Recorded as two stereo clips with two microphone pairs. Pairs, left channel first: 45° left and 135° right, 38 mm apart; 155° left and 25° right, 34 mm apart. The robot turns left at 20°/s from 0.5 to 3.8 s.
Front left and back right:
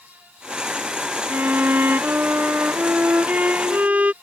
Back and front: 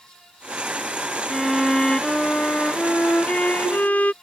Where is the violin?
125° right; by 4.1 s 175° right.